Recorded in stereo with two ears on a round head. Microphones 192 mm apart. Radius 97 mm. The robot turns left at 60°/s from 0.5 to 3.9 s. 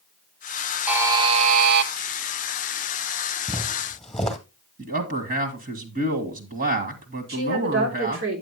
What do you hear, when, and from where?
0.9 s a buzzer: 5° right, 0.8 m; by 1.9 s 70° right, 0.8 m
3.5 s footsteps: 15° right (ahead or behind), 1.7 m; by 4.4 s 5° left (ahead or behind), 1.7 m
4.8 s a man speaking: 45° right (ahead or behind), 1.8 m
7.3 s a woman speaking: 60° right (ahead or behind), 3.5 m